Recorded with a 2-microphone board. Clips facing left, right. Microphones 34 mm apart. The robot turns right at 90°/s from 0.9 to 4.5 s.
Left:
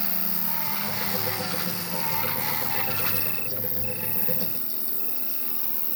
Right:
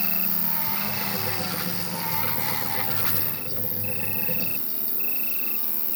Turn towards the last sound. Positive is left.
turn(degrees=-110)